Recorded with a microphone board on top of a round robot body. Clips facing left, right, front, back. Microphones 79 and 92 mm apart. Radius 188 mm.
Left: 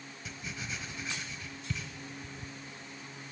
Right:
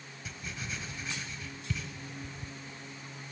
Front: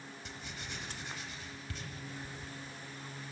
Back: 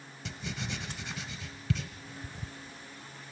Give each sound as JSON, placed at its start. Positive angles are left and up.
{"t": 0.2, "sound": "writing", "azimuth_deg": -175, "distance_m": 0.8}